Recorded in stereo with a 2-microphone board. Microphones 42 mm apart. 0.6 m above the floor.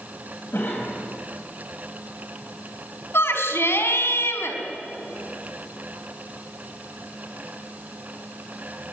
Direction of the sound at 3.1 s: 80° left.